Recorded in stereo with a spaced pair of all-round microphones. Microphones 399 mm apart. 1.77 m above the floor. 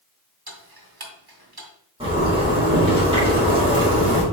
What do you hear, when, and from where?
0.5 s ticking: 65° right (ahead or behind), 1.4 m
2.0 s a zipper: 15° right (ahead or behind), 3 m